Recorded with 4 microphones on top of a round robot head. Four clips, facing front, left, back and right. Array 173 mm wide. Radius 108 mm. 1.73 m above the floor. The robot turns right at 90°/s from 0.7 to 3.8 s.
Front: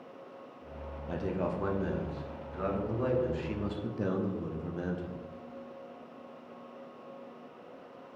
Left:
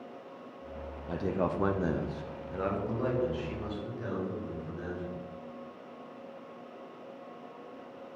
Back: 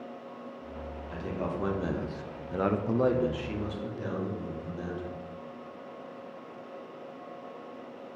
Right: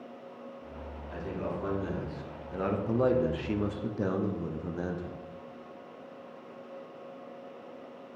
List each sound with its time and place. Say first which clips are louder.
1.1 s a man speaking: left 5 dB, front 2 dB; 50° left, 1.1 m; by 5.2 s 65° right, 1.1 m